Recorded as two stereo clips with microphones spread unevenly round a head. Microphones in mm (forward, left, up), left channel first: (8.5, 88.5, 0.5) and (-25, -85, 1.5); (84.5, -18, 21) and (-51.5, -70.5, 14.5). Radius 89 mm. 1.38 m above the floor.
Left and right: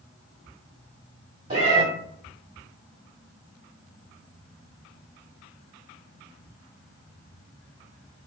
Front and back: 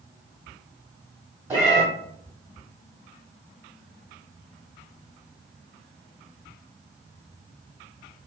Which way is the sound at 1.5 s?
95° right.